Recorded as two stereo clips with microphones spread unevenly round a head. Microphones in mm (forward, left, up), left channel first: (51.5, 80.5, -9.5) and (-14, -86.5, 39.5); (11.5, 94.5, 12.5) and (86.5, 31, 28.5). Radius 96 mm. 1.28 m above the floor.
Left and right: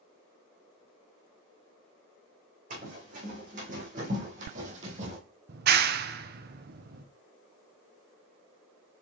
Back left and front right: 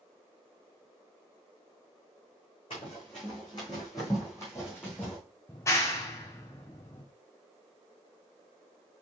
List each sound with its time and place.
2.7 s running footsteps: 150° right, 3.5 m; by 5.2 s 130° right, 2.0 m
5.5 s a clap: 155° right, 0.6 m